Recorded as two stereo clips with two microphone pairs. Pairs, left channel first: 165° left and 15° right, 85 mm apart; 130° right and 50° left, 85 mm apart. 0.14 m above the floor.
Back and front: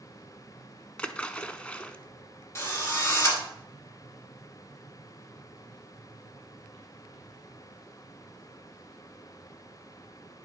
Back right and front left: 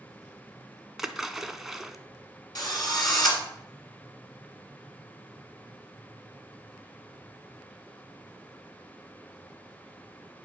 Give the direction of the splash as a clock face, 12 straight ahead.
8 o'clock.